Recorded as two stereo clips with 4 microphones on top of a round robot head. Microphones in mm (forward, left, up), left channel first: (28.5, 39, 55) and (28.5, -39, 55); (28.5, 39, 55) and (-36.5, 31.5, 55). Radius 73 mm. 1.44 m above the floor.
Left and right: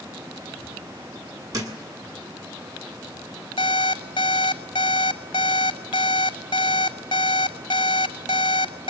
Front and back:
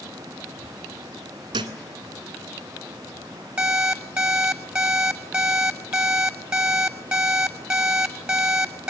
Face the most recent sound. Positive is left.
turn(degrees=120)